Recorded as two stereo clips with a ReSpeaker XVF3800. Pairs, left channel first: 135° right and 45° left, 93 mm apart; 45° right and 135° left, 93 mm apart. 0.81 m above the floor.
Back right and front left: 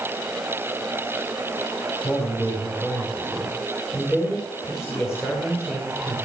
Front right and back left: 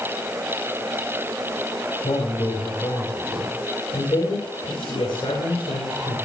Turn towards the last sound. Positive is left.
turn(degrees=-75)